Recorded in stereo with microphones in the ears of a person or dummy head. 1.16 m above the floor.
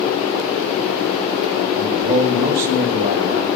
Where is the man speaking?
55° right (ahead or behind), 1.5 m.